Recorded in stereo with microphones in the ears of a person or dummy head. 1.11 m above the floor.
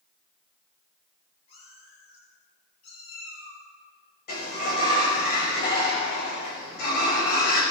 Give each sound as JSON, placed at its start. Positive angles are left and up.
{"t": 1.5, "sound": "a cat meowing", "side_deg": 35, "distance_m": 9.0}
{"t": 4.3, "sound": "a sliding door", "side_deg": 50, "distance_m": 6.0}